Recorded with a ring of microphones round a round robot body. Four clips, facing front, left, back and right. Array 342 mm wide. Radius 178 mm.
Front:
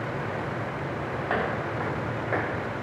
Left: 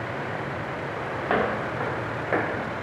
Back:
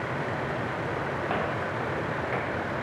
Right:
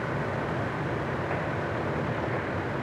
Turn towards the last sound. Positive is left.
turn(degrees=70)